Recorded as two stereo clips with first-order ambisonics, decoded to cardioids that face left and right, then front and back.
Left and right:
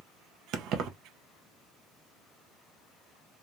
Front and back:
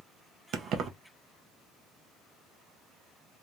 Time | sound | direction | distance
0.5 | keys jangling | 130° right | 0.5 m